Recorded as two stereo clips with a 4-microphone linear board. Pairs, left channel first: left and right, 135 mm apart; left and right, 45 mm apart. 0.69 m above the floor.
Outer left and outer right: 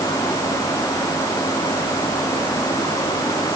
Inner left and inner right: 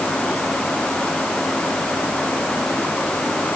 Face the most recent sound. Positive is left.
No sound to turn to.